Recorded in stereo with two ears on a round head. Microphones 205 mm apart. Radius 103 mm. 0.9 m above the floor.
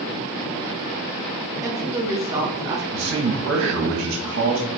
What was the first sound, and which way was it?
A woman speaking, 15° right (ahead or behind).